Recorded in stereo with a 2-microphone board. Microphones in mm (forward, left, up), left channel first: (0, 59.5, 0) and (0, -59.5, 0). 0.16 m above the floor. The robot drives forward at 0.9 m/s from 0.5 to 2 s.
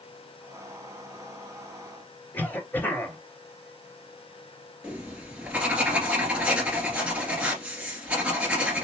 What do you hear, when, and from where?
2.3 s a cough: 15° left (ahead or behind), 2.5 m
4.8 s writing: 10° right (ahead or behind), 2.0 m